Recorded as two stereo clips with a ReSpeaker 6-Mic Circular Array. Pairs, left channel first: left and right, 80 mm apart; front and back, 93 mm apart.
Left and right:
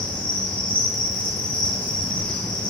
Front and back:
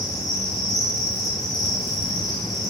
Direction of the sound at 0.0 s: 90° left.